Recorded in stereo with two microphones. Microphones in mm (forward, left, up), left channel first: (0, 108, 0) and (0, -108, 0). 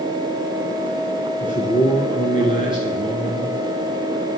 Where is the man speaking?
40° left (ahead or behind), 1.5 m.